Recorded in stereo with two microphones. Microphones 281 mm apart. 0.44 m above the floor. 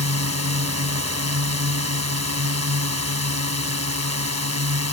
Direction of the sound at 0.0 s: 65° right (ahead or behind).